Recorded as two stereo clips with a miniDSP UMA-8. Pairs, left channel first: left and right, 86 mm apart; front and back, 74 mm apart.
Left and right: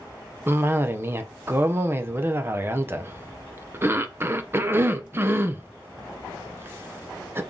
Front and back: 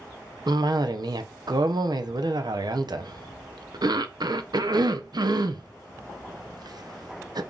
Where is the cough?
155° right, 0.5 m.